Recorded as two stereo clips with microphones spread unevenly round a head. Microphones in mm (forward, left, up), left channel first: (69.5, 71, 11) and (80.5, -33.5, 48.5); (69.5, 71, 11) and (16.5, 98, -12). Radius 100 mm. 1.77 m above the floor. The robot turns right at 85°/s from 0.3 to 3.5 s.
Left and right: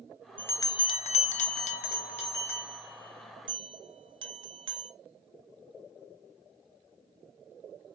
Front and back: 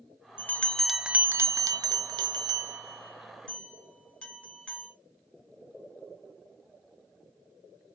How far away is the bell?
About 0.6 m.